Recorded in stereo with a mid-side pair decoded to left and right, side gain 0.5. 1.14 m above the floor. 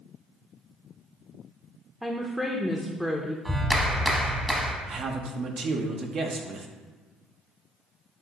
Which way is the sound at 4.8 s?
55° right.